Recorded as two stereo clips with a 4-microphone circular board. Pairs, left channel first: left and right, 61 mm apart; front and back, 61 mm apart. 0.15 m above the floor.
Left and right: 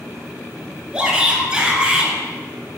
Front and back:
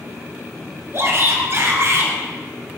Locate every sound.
0.9 s a shout: 160° right, 1.7 m